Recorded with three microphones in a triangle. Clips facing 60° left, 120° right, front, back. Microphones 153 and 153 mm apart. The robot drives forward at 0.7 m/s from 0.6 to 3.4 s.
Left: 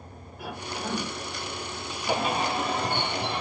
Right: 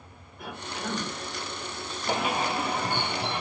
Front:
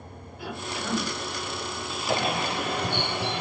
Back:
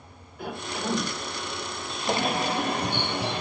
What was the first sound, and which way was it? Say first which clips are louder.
A cough: left 1 dB, back 2 dB; 145° left.